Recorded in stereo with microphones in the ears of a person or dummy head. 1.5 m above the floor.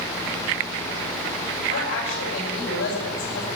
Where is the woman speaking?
85° left, 9 m.